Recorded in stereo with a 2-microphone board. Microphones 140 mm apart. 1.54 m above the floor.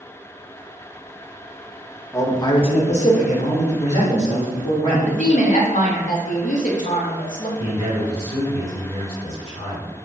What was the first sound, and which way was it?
A man speaking, 20° left (ahead or behind).